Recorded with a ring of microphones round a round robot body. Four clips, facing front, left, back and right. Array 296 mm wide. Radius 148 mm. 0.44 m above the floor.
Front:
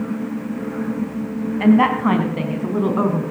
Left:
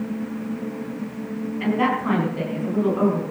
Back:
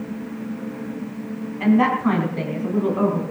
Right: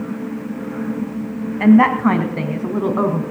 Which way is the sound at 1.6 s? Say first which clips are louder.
Right 10 dB, front 3 dB; 65° right.